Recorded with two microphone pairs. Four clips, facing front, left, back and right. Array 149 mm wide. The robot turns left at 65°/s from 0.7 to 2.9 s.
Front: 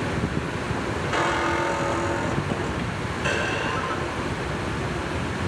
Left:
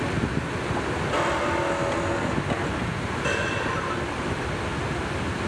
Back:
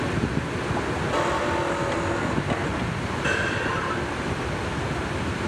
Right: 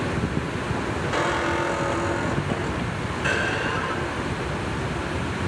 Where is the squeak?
10° right, 1.2 m; by 4.6 s 125° right, 1.2 m.